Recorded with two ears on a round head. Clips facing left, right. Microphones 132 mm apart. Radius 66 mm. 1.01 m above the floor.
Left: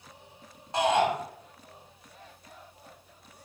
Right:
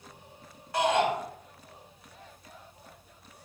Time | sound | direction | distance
0.7 | a shout | 20° left (ahead or behind) | 3.5 m